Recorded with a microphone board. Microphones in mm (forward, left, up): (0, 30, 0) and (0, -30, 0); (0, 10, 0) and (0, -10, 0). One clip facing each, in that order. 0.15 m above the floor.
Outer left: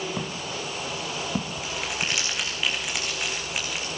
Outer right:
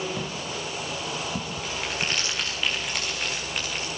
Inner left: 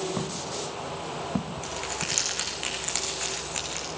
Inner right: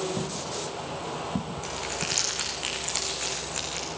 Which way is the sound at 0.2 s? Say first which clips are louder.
Even, even; 25° left (ahead or behind).